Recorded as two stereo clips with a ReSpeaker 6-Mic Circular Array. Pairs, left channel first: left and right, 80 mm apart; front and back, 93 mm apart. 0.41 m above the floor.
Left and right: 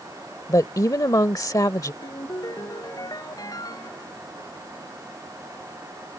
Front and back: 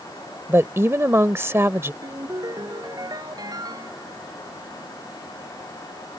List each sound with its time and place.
0.5 s a woman speaking: 125° left
2.0 s a ringtone: 130° left